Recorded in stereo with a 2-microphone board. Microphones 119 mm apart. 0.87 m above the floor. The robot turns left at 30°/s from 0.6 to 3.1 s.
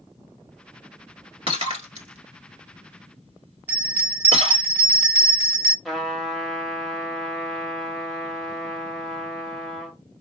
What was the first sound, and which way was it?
Breaking glass, 45° right (ahead or behind).